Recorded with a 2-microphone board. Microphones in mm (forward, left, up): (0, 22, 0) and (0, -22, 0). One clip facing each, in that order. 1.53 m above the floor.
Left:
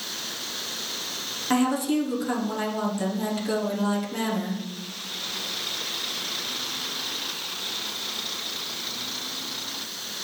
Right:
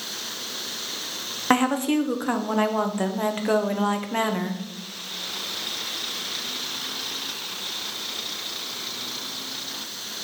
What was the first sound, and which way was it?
A woman speaking, 45° right (ahead or behind).